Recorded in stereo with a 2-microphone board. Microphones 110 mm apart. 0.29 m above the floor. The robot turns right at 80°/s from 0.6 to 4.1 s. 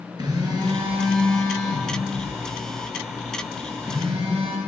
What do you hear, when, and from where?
0.2 s a phone buzzing: 40° right, 4 m; by 4.6 s 120° right, 4 m